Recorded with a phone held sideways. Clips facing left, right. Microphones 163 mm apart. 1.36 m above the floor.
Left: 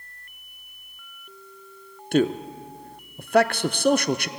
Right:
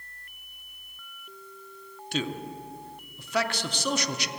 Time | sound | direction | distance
2.1 | a man speaking | 55° left (ahead or behind) | 0.5 m